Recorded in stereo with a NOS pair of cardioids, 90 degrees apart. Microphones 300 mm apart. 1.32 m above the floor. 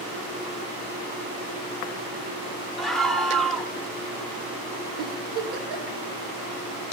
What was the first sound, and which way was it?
A scream, straight ahead.